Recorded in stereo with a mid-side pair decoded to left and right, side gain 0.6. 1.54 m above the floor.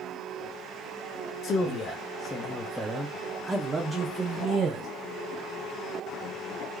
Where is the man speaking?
55° left, 1.0 m; by 4.9 s 50° right, 1.5 m.